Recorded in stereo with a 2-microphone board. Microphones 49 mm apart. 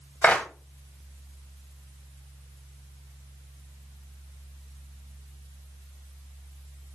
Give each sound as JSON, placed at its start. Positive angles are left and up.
{"t": 0.2, "sound": "a clap", "side_deg": 30, "distance_m": 1.2}